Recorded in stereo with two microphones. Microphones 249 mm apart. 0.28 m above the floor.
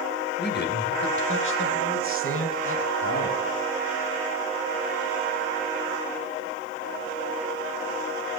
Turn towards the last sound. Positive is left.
turn(degrees=60)  # may be behind; listen again after turning